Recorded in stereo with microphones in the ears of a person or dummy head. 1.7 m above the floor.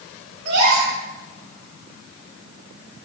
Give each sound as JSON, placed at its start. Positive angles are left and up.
{"t": 0.5, "sound": "a gasp", "side_deg": -65, "distance_m": 3.0}